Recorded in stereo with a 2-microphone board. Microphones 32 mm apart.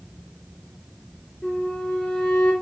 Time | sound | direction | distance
1.4 | a flute | 50° left (ahead or behind) | 3.5 m